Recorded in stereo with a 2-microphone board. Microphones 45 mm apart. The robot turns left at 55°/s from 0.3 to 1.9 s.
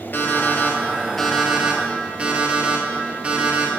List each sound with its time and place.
0.1 s an alarm clock: 55° left, 1.3 m; by 3.7 s 30° right, 1.3 m